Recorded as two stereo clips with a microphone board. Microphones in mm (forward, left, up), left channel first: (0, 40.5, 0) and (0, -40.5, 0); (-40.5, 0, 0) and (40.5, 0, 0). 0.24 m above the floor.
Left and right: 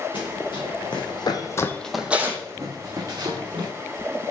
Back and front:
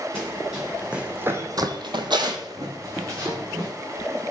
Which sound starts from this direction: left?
Running footsteps, at 0.1 s.